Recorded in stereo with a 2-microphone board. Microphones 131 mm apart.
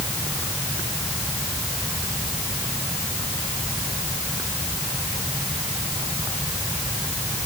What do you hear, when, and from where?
Only background noise.